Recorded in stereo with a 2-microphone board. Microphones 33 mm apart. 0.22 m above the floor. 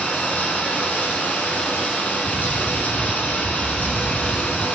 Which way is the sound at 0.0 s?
60° left (ahead or behind).